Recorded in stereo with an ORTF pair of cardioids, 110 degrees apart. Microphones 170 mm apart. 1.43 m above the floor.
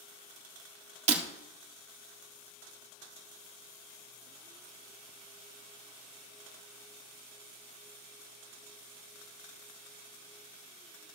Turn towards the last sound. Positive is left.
turn(degrees=-45)